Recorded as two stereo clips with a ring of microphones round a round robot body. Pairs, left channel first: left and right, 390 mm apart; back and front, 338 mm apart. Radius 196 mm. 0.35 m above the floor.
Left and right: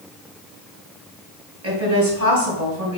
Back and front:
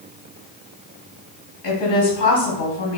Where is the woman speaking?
140° right, 2.5 m.